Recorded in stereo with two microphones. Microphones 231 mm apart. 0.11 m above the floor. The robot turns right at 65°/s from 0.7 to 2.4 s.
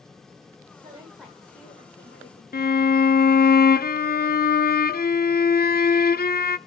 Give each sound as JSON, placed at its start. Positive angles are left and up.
{"t": 0.8, "sound": "a woman speaking", "azimuth_deg": -25, "distance_m": 9.0}
{"t": 2.5, "sound": "a violin", "side_deg": 40, "distance_m": 0.5}